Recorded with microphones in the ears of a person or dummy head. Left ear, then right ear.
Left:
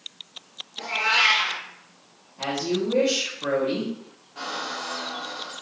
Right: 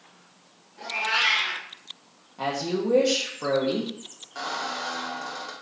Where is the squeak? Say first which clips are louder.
Even; 55° right (ahead or behind), 1.0 m.